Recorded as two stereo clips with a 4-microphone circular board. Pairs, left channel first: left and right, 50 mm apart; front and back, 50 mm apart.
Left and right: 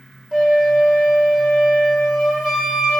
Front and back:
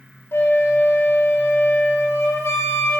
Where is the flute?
15° right, 3 m.